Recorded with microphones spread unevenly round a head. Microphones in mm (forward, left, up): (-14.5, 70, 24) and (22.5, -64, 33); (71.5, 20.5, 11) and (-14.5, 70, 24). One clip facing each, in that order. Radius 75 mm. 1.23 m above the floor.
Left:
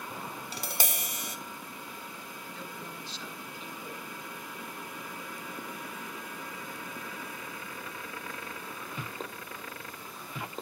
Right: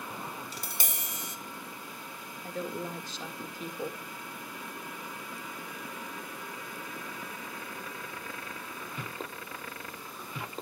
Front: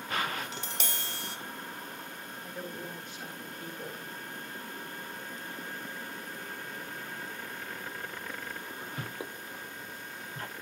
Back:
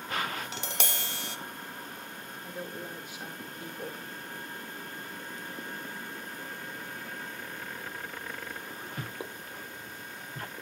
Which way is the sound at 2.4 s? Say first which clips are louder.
Right 10 dB, back 1 dB; 125° right.